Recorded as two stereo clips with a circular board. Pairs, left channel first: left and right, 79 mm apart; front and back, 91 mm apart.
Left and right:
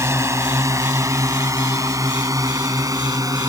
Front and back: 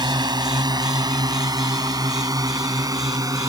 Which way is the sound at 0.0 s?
140° right.